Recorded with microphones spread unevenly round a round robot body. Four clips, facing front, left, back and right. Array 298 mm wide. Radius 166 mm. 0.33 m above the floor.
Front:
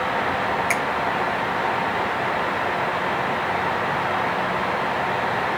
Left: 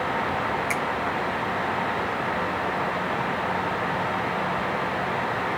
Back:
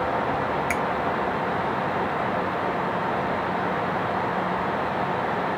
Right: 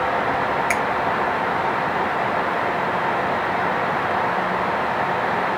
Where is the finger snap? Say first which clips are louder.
Right 6 dB, front 2 dB; 155° right, 1.2 m.